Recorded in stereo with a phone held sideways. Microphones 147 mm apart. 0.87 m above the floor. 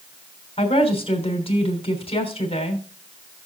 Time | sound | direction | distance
0.6 | a woman speaking | 40° left (ahead or behind) | 3.5 m